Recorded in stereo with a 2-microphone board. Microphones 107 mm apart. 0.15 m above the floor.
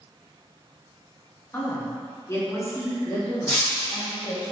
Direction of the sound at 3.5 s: 15° left (ahead or behind).